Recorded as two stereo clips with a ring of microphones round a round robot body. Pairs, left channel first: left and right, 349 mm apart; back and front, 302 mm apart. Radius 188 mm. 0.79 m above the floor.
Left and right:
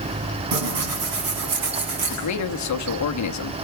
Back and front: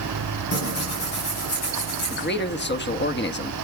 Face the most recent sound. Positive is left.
turn(degrees=125)